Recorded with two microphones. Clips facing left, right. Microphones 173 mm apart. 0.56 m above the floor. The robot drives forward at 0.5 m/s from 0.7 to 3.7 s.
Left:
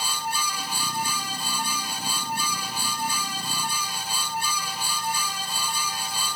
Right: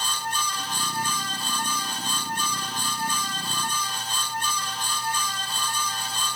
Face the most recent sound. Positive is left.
No sound to turn to.